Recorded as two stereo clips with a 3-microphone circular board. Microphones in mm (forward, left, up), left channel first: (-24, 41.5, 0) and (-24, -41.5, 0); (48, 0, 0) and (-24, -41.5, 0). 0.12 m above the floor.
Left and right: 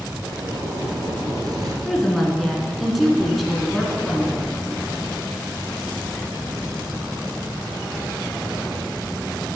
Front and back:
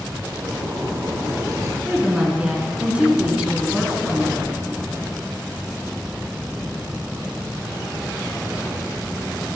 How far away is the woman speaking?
About 1.6 m.